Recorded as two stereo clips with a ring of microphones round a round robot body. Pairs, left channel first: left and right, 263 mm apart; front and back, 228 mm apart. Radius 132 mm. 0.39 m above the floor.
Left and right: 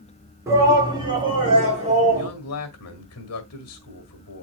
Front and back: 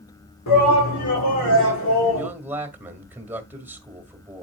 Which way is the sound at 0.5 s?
10° right.